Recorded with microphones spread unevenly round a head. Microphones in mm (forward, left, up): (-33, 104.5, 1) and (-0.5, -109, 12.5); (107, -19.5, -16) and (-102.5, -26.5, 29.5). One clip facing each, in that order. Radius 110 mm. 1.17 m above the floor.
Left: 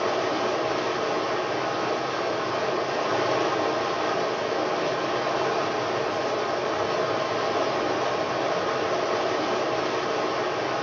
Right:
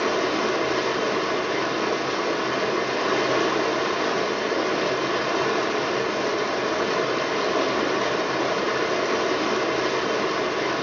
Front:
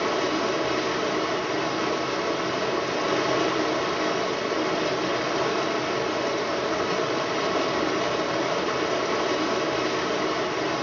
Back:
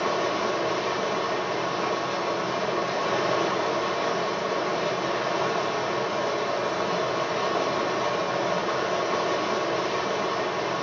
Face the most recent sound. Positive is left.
turn(degrees=-50)